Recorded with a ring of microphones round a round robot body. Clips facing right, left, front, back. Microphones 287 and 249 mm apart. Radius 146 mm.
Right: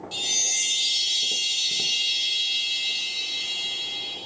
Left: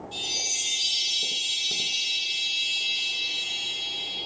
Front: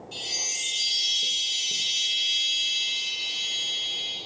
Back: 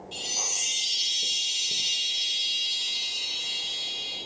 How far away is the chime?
About 2 m.